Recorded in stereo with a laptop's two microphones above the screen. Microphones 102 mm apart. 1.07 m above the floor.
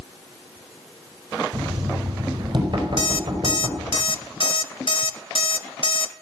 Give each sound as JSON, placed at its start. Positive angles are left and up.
{"t": 1.5, "sound": "knocking", "side_deg": -50, "distance_m": 4.5}
{"t": 3.0, "sound": "an alarm clock", "side_deg": 55, "distance_m": 0.7}